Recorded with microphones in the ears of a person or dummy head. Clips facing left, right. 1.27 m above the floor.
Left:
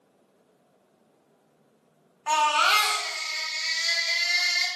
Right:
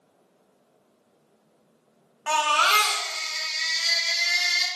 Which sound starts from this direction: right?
A baby crying, at 2.3 s.